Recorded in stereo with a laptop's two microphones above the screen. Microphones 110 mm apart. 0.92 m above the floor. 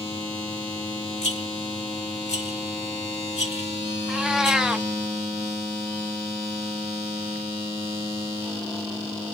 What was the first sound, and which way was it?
A rattle, 75° left (ahead or behind).